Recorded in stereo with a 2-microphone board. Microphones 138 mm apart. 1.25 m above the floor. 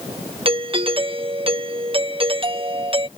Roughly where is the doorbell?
Right.